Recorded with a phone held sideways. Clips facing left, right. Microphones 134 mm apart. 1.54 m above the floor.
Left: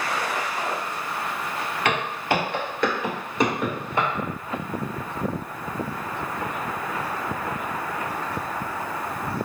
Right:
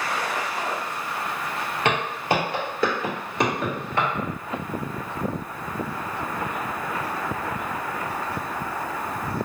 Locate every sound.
1.9 s footsteps: 25° right (ahead or behind), 1.7 m; by 4.1 s 15° left (ahead or behind), 1.6 m